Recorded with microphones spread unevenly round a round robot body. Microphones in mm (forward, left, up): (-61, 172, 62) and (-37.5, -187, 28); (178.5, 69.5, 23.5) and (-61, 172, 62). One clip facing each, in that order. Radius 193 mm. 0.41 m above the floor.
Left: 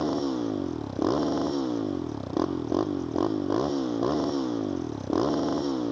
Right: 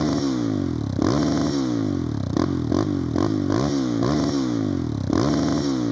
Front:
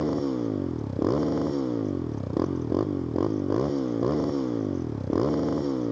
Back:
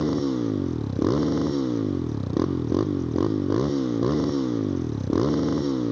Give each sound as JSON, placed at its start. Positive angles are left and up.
{"t": 0.0, "sound": "a motorcycle", "azimuth_deg": -130}